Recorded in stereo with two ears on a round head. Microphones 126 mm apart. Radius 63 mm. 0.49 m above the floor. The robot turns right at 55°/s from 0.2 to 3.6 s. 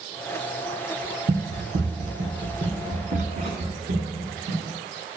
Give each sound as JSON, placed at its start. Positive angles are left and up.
{"t": 1.3, "sound": "running footsteps", "side_deg": -45, "distance_m": 1.9}